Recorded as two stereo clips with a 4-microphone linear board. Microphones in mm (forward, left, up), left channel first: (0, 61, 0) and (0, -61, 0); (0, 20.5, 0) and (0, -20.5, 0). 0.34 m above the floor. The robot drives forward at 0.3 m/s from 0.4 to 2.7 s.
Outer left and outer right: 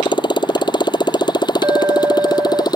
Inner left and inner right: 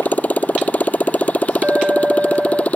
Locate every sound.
0.0 s a motorcycle: 35° left (ahead or behind)
1.6 s a clink: 30° right (ahead or behind)